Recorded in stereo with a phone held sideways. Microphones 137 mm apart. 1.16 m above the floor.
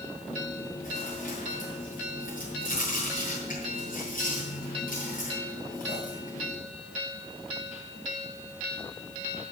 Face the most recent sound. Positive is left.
turn(degrees=85)